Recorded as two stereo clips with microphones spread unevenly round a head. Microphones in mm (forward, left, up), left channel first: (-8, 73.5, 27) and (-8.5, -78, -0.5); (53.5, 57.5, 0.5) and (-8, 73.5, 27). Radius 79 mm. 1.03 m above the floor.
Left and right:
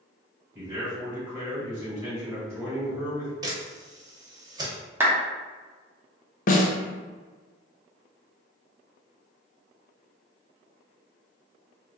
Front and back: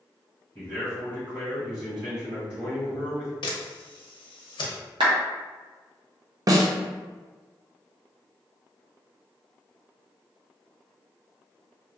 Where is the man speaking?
165° right, 1.8 m.